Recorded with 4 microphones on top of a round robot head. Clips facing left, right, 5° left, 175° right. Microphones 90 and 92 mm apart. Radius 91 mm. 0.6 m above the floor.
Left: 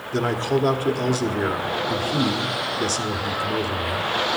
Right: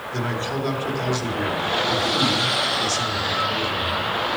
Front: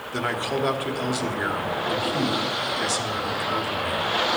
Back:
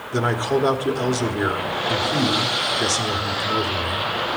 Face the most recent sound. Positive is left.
turn(degrees=130)